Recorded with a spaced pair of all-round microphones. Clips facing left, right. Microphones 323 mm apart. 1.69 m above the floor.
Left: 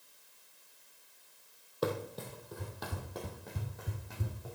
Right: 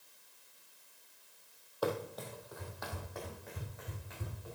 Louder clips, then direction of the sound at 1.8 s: Left 1 dB; 30° left (ahead or behind).